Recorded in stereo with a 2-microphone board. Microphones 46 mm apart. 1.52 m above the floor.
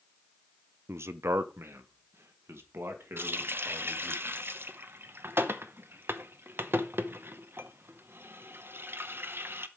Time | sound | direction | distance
0.9 | a man speaking | 75° right (ahead or behind) | 0.6 m
3.2 | a running tap | 60° right (ahead or behind) | 0.8 m